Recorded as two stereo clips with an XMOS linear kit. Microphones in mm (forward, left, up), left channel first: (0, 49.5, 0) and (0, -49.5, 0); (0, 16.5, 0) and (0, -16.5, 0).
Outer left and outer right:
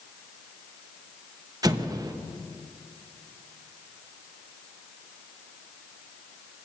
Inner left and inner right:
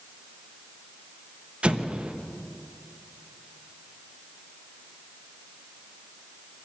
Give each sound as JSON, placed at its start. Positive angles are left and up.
{"t": 1.6, "sound": "an explosion", "side_deg": -35, "distance_m": 0.8}